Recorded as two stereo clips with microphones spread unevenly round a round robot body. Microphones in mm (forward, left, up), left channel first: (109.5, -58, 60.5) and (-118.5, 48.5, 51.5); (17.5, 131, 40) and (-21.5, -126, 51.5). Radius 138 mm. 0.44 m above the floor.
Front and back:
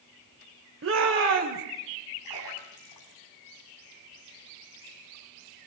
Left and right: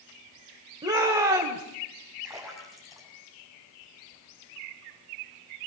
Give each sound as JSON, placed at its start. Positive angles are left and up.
{"t": 0.8, "sound": "a shout", "azimuth_deg": -175, "distance_m": 1.7}
{"t": 2.2, "sound": "a splash", "azimuth_deg": -10, "distance_m": 7.5}